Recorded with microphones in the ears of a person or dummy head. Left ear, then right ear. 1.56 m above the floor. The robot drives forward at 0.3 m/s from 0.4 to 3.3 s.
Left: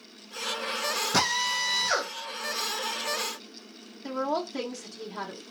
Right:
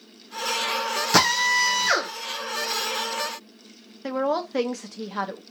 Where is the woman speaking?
30° right (ahead or behind), 0.6 m.